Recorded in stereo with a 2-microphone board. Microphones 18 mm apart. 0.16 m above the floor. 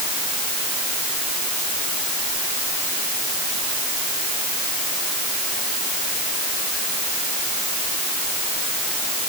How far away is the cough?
I don't hear a cough.